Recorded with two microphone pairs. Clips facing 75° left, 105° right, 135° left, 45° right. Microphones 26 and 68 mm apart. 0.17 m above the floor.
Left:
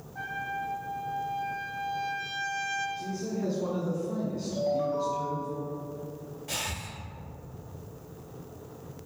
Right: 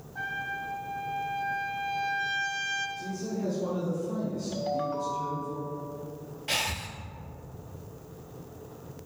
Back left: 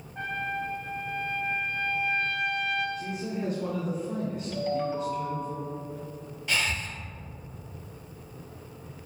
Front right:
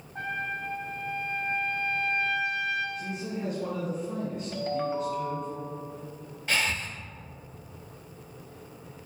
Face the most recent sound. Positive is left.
turn(degrees=-95)